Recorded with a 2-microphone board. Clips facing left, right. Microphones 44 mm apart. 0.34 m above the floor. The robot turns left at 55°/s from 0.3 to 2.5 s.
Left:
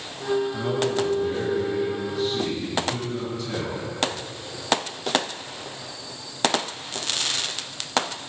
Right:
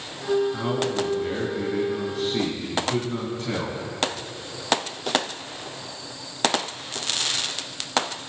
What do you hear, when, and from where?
0.5 s a man speaking: 25° right, 3.5 m; by 3.8 s 130° right, 3.5 m